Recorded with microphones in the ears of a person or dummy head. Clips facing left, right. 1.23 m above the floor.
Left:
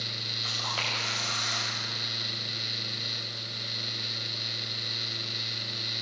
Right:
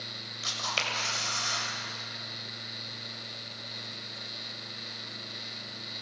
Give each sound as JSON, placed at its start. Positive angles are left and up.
{"t": 0.4, "sound": "a camera shutter", "side_deg": -40, "distance_m": 6.0}